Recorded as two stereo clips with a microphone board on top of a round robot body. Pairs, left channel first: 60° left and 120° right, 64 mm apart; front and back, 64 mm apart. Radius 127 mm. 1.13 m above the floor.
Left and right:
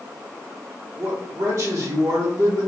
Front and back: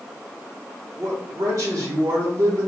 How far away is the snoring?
I don't hear snoring.